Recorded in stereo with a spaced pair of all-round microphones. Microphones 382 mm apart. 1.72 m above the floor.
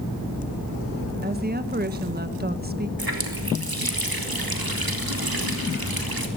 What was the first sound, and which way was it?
A woman speaking, 25° right (ahead or behind).